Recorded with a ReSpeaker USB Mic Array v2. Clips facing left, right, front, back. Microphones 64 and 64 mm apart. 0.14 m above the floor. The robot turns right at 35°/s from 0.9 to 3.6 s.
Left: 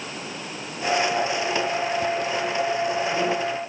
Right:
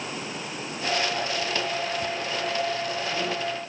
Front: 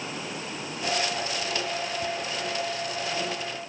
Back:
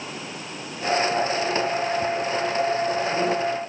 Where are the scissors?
No scissors in this recording.